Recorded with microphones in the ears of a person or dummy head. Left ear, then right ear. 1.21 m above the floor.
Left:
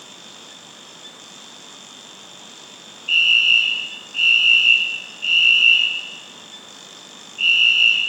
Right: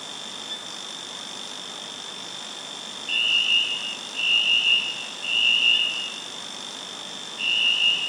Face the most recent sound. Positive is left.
turn(degrees=15)  # may be behind; listen again after turning